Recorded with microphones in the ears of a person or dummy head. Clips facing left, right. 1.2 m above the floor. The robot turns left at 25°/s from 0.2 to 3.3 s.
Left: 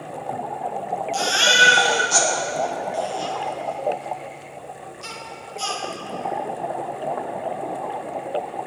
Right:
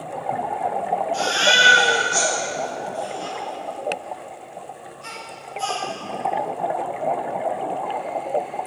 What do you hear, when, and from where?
1.1 s a baby crying: 65° left (ahead or behind), 1.6 m; by 5.8 s 60° left (ahead or behind), 1.6 m